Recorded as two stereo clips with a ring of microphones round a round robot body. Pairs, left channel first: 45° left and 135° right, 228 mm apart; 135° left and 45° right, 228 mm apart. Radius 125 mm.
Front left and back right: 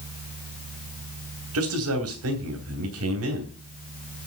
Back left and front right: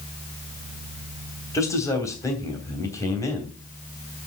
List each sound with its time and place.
1.5 s a man speaking: 150° right, 3 m